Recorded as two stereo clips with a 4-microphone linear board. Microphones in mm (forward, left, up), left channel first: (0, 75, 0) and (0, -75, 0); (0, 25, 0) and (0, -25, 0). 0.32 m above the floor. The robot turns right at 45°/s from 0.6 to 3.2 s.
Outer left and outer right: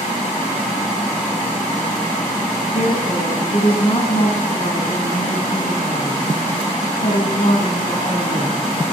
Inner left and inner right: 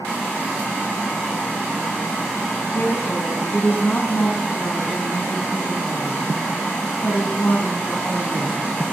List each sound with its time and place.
2.7 s a woman speaking: 60° left (ahead or behind), 3 m; by 8.7 s 40° left (ahead or behind), 3 m